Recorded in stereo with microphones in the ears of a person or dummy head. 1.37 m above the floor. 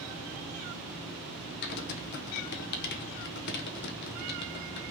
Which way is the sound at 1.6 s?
55° left (ahead or behind).